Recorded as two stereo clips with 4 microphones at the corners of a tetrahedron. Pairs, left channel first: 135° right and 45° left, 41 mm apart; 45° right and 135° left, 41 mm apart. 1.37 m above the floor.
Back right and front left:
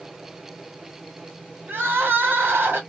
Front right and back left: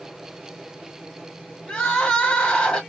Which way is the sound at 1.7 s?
20° left.